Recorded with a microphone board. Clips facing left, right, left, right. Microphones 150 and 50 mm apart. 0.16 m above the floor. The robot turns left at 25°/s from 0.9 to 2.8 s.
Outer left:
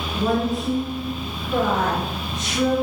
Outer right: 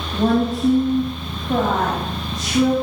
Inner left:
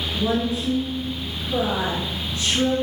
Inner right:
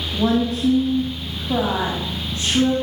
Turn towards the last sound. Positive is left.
turn(degrees=-150)